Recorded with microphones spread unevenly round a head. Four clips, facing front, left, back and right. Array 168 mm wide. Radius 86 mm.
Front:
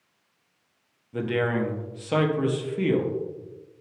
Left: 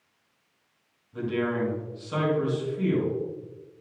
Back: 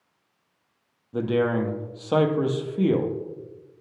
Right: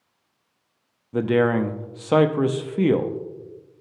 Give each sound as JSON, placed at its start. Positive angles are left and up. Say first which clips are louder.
{"t": 1.1, "sound": "a man speaking", "louder": "right 8 dB, back 2 dB", "azimuth_deg": -100, "distance_m": 0.7}